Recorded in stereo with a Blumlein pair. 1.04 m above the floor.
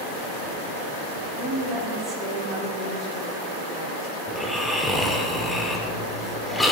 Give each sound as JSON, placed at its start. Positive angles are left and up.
{"t": 1.4, "sound": "a woman speaking", "azimuth_deg": -20, "distance_m": 2.5}
{"t": 4.3, "sound": "snoring", "azimuth_deg": 5, "distance_m": 1.3}